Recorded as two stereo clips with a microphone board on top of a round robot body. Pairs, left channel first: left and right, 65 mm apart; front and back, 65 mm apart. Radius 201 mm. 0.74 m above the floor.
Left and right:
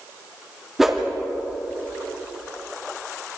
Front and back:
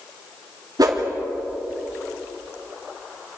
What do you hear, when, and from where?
0.8 s a whoosh: 175° right, 2.5 m